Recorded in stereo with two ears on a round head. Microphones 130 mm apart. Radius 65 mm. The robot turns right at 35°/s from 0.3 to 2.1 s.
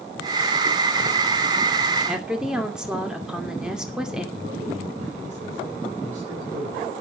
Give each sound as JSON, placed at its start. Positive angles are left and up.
{"t": 2.1, "sound": "a woman speaking", "side_deg": -5, "distance_m": 2.5}
{"t": 4.3, "sound": "a man speaking", "side_deg": -55, "distance_m": 4.0}